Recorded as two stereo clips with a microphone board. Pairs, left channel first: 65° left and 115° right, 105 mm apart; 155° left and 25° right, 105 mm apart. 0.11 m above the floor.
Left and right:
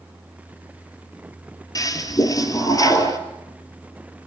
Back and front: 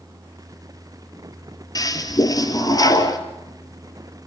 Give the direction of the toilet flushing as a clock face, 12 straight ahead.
8 o'clock.